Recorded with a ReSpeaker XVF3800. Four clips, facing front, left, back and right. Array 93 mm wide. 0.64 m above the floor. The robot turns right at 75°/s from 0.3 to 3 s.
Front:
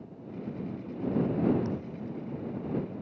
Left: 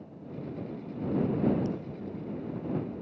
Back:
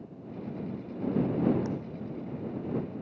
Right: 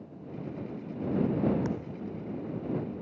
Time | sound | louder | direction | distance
1.6 | a thud | even, even | 95° right | ?